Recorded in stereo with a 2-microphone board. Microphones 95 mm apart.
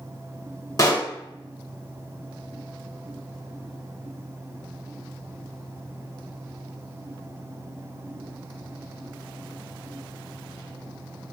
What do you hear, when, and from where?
0.8 s a pop: 40° left (ahead or behind), 1.4 m